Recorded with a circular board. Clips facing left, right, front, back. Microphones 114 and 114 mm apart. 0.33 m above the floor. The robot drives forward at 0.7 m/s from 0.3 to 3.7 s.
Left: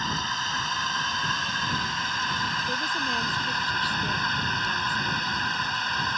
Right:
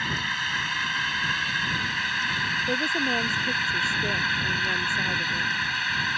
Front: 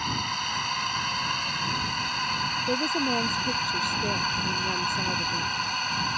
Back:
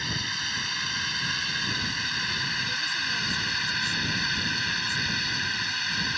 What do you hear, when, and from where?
0.0 s a drone: 30° left
2.7 s a woman speaking: 30° right